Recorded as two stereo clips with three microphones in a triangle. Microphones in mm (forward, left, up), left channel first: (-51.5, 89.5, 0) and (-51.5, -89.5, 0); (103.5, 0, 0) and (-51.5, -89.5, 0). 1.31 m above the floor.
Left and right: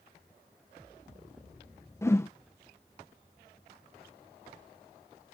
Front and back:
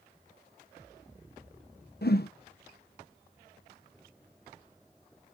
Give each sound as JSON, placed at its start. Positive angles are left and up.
{"t": 2.0, "sound": "a whoosh", "azimuth_deg": 15}